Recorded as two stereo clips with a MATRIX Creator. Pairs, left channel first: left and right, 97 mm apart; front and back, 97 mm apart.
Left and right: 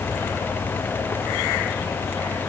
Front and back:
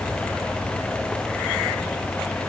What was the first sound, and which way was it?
Only background noise.